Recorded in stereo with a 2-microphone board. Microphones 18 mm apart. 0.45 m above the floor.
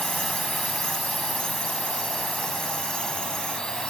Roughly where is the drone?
Left.